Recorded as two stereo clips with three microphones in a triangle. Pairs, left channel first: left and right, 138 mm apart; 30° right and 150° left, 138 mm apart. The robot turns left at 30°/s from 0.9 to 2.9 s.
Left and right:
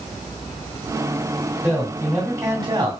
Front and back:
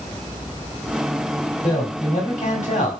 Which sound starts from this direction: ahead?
A man speaking, at 1.6 s.